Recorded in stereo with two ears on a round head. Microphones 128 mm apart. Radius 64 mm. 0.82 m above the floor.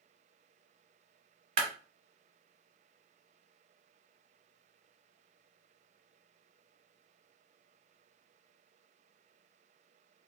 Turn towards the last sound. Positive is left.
turn(degrees=-50)  # may be behind; listen again after turning